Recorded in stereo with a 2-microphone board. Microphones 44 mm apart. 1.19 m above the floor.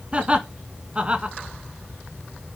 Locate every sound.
0.1 s laughter: 25° right (ahead or behind), 1.7 m